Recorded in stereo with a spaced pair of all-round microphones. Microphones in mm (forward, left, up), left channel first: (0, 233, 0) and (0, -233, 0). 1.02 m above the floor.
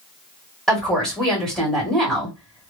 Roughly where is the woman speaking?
Centre.